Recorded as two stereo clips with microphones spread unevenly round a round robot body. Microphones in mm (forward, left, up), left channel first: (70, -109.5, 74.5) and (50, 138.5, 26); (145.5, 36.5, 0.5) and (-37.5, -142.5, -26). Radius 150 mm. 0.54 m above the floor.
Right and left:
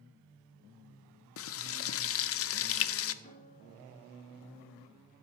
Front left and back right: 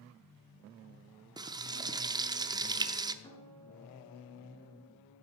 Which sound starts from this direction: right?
Frying, at 1.4 s.